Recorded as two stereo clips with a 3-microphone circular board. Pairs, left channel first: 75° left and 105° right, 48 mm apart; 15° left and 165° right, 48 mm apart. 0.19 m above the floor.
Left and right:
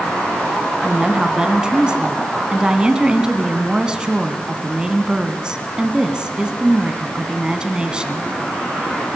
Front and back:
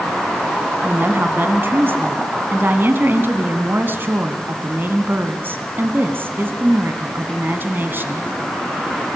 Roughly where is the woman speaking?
Behind.